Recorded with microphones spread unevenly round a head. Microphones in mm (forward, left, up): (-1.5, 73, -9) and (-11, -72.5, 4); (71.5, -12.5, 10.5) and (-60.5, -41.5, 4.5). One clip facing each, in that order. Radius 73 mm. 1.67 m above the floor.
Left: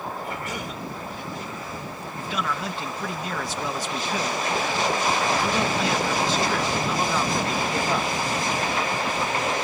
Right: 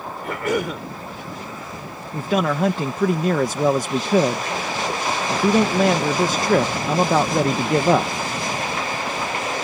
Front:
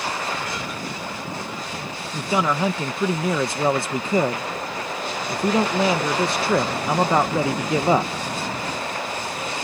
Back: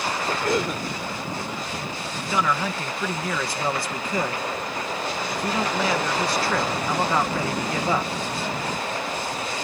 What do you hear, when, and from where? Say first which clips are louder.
0.2 s a cough: right 9 dB, back 5 dB; 125° right
2.1 s a man speaking: right 10 dB, front 3 dB; 55° right